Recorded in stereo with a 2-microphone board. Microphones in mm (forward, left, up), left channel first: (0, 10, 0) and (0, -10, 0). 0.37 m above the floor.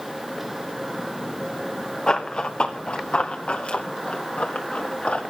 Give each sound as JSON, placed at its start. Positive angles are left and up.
{"t": 2.1, "sound": "running footsteps", "side_deg": 50, "distance_m": 1.5}